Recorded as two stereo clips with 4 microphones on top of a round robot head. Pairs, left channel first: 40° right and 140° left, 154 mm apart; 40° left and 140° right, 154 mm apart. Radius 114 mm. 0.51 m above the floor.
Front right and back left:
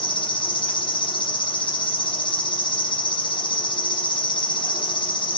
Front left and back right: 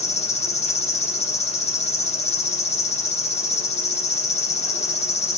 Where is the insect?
10° left, 1.3 m.